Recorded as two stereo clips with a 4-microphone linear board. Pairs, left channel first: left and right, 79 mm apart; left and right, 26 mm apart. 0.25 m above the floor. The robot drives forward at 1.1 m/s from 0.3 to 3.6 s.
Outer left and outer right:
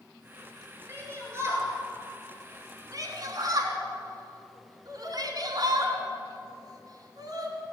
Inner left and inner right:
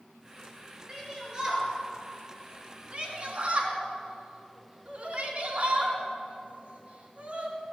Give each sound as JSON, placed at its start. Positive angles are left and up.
{"t": 0.9, "sound": "a shout", "side_deg": -30, "distance_m": 5.0}